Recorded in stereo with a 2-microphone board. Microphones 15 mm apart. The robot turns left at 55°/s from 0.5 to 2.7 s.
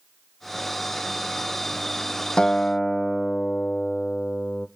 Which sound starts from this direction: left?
A guitar, at 2.4 s.